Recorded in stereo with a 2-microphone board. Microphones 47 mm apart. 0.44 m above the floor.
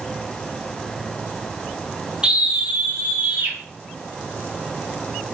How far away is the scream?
About 0.8 m.